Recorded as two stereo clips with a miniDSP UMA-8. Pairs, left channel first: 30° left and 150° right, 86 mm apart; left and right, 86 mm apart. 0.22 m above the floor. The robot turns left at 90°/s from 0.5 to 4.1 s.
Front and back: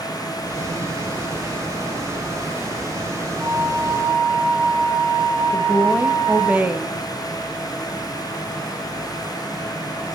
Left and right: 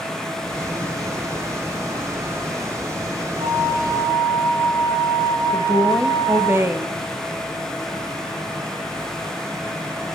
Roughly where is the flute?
Right.